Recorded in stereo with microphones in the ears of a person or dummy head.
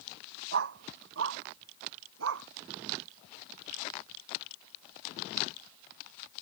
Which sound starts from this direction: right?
A dog barking, at 0.5 s.